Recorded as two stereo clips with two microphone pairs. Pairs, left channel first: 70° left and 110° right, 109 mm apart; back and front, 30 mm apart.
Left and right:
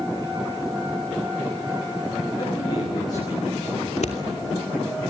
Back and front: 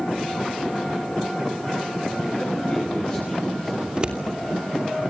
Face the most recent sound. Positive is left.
turn(degrees=60)